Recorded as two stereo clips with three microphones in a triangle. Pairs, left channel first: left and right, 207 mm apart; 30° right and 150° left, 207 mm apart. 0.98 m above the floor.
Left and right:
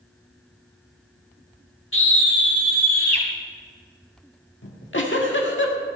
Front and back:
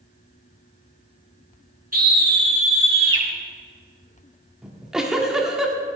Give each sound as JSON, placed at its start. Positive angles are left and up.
{"t": 1.9, "sound": "a scream", "azimuth_deg": 105, "distance_m": 2.0}
{"t": 4.6, "sound": "a giggle", "azimuth_deg": 65, "distance_m": 1.6}